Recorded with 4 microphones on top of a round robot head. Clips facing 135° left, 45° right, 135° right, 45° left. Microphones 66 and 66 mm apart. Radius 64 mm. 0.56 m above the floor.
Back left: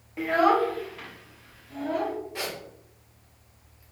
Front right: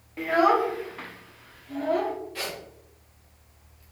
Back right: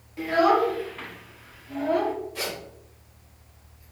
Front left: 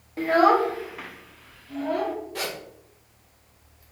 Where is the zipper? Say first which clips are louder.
Back left 1 dB, front left 1 dB; 65° left, 1.4 m.